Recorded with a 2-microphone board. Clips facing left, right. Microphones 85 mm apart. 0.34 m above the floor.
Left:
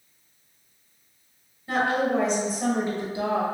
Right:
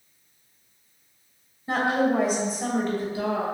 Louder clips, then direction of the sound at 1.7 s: Right 1 dB; 25° right (ahead or behind).